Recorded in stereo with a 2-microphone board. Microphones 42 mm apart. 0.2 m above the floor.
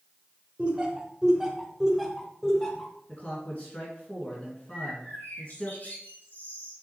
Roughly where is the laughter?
Right.